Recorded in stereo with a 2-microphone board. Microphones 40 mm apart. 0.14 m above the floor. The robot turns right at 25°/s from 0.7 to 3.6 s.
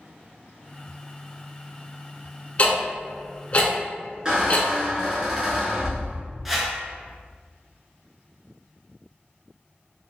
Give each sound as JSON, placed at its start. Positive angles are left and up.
{"t": 2.6, "sound": "ticking", "side_deg": 35, "distance_m": 0.8}
{"t": 4.2, "sound": "a squeak", "side_deg": -25, "distance_m": 1.0}
{"t": 6.5, "sound": "a whoosh", "side_deg": -5, "distance_m": 0.5}